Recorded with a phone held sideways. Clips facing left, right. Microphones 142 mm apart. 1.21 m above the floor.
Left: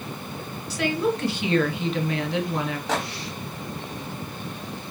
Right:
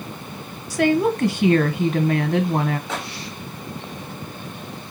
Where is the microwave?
85° left, 1.8 m.